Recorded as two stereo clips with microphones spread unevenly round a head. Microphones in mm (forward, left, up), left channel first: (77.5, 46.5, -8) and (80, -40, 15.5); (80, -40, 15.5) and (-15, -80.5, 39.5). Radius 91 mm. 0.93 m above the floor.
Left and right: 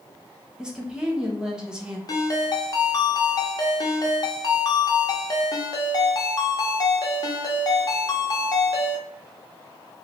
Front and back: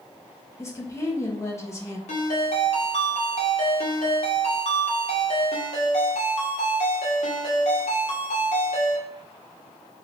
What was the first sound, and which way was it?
A woman speaking, 5° left.